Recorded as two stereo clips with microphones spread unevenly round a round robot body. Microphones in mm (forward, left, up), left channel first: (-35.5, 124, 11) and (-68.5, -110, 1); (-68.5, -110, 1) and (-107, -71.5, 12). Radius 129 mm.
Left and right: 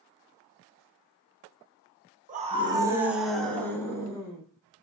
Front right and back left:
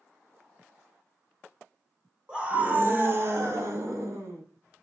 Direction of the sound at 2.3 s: 140° right.